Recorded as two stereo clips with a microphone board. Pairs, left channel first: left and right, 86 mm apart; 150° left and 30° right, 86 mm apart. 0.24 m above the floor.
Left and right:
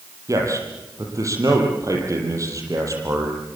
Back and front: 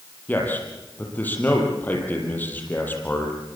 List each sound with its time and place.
0.3 s a man speaking: 140° right, 7 m